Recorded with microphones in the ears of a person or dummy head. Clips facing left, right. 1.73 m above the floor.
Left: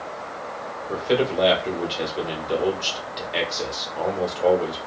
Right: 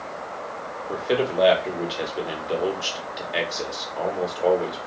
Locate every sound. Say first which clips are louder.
0.9 s a man speaking: left 2 dB; 5° right (ahead or behind), 1.2 m